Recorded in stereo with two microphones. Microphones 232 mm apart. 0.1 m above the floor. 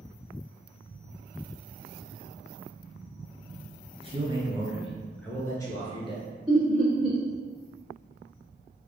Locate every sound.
4.0 s a man speaking: 25° right (ahead or behind), 1.2 m; by 6.2 s 25° left (ahead or behind), 1.4 m
6.5 s laughter: centre (ahead or behind), 1.9 m